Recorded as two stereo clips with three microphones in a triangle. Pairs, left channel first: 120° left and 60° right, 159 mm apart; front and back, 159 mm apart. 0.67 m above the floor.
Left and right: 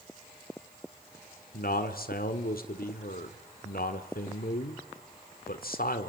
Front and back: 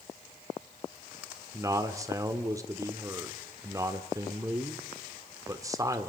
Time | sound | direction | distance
1.5 | a man speaking | 110° left | 1.6 m